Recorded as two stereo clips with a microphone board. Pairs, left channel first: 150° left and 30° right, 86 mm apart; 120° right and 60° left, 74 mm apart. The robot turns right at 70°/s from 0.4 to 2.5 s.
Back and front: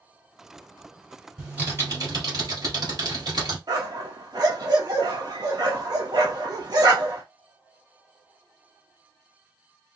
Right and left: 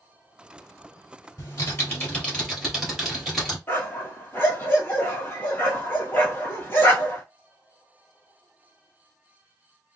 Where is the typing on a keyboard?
105° right, 2 m; by 3.6 s 30° right, 2 m.